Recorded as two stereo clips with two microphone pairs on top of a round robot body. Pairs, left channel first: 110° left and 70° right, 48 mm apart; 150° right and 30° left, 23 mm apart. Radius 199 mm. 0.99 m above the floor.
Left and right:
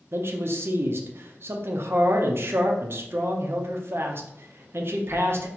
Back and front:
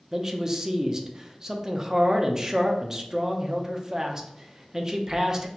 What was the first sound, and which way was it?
A man speaking, 35° right.